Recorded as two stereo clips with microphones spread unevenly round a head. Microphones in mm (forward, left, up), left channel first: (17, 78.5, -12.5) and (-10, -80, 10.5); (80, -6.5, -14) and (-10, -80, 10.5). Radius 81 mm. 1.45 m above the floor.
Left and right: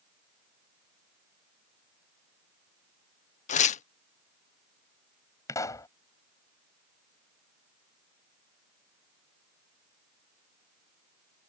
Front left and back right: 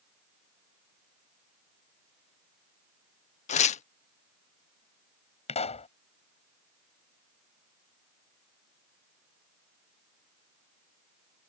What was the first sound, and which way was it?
Tearing paper, 40° left.